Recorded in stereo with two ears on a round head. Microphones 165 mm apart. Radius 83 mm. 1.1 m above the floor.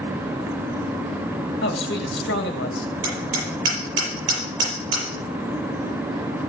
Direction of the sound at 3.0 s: 75° right (ahead or behind).